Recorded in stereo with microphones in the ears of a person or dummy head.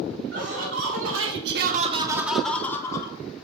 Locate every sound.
0.3 s laughter: 75° right (ahead or behind), 2 m; by 3.1 s 25° left (ahead or behind), 2.0 m